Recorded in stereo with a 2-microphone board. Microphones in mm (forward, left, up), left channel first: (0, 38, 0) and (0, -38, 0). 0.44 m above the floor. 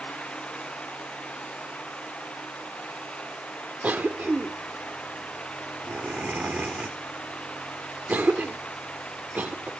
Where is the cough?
20° right (ahead or behind).